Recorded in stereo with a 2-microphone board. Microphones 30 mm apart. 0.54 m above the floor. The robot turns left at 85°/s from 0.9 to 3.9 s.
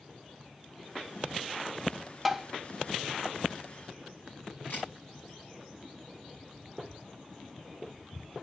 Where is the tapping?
5° right (ahead or behind), 0.5 m; by 2.5 s 15° right (ahead or behind), 0.5 m.